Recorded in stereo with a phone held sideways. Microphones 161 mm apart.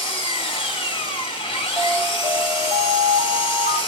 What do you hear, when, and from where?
0.0 s an engine running: 35° left (ahead or behind), 1.7 m
1.8 s an alarm: 35° right (ahead or behind), 6 m